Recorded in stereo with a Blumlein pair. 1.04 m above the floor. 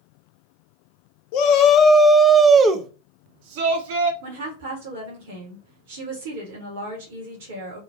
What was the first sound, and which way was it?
A shout, 45° left.